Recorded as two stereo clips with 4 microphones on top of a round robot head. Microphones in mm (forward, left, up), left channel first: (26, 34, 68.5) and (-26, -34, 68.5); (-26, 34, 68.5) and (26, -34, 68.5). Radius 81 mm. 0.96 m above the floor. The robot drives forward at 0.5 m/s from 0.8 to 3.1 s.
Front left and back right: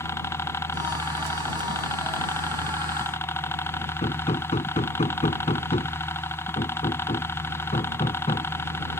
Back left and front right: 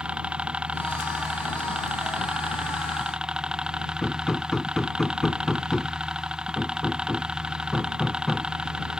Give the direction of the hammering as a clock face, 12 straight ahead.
11 o'clock.